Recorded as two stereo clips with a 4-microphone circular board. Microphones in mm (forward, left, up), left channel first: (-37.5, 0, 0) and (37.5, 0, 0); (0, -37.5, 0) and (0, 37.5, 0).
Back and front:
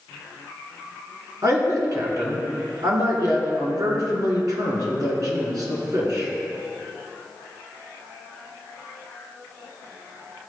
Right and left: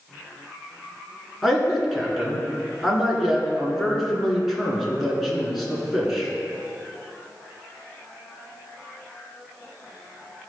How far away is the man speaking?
About 1.8 m.